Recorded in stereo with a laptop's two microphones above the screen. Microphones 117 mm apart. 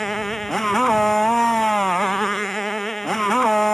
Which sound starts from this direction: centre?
A motorcycle, at 0.0 s.